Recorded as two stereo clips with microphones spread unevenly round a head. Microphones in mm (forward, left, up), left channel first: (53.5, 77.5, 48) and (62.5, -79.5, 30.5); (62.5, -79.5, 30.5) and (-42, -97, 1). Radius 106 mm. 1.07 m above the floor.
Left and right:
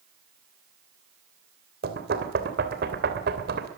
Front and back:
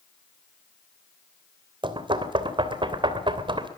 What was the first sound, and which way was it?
Knocking, 125° right.